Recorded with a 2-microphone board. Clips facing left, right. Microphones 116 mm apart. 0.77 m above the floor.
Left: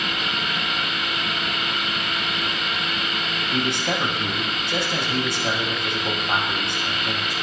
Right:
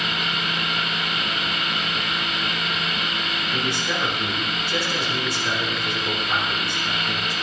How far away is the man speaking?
About 4 m.